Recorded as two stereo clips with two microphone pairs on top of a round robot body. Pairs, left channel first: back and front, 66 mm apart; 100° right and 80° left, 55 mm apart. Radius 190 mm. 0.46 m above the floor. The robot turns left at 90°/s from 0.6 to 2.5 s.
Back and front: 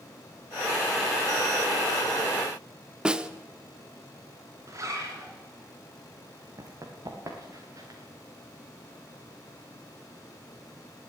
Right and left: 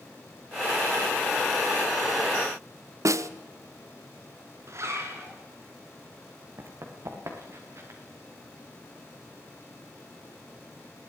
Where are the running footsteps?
45° left, 2.5 m; by 8.0 s 40° left, 3.5 m.